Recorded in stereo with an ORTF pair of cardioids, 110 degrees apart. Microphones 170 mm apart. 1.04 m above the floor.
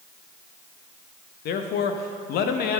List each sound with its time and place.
1.4 s a man speaking: 70° left, 1.0 m